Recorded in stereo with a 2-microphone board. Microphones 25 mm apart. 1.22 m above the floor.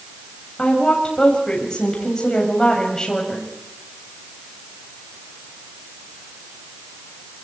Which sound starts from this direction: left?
A woman speaking, at 0.6 s.